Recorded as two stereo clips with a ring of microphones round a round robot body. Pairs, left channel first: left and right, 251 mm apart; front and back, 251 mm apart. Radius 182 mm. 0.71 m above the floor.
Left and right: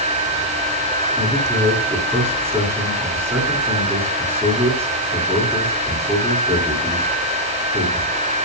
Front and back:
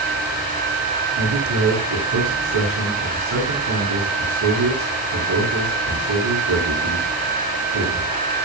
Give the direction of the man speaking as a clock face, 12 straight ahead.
6 o'clock.